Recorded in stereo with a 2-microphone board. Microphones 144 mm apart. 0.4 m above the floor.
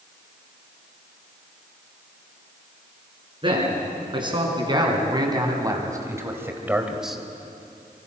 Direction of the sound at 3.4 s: 35° right (ahead or behind).